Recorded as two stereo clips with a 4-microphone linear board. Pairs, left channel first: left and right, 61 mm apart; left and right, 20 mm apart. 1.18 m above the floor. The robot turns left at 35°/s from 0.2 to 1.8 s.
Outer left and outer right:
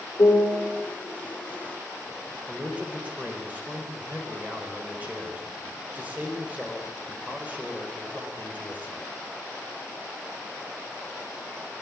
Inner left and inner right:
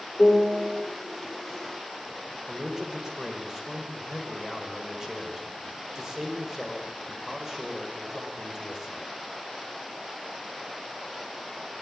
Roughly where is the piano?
Left.